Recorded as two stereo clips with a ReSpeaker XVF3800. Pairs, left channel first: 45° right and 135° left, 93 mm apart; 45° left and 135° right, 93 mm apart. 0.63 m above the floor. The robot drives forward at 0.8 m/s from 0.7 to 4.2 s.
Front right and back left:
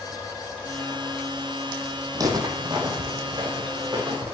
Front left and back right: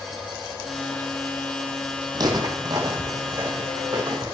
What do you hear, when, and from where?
2.1 s footsteps: 175° right, 1.5 m; by 4.3 s 170° left, 4 m